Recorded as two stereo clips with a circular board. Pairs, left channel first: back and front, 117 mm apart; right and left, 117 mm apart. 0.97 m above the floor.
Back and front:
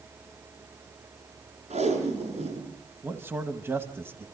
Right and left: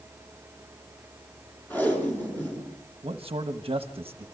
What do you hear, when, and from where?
1.7 s tape being pulled: 15° right, 6 m
3.0 s a man speaking: 65° left, 1.2 m